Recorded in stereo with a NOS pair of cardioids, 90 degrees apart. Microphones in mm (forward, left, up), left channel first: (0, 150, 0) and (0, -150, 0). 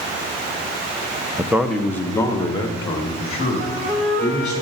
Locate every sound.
1.4 s a man speaking: 15° right, 0.7 m; by 4.6 s 25° left, 3.5 m
3.6 s a flute: 25° right, 2 m